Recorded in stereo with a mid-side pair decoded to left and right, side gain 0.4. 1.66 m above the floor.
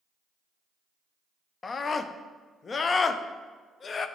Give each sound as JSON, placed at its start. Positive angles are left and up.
{"t": 1.6, "sound": "a scream", "azimuth_deg": 45, "distance_m": 0.5}